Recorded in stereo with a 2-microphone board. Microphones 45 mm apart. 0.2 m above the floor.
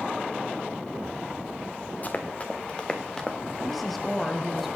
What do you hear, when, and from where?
2.0 s running footsteps: 35° left (ahead or behind), 1.6 m; by 3.4 s 10° left (ahead or behind), 1.3 m
3.6 s a woman speaking: centre (ahead or behind), 1.4 m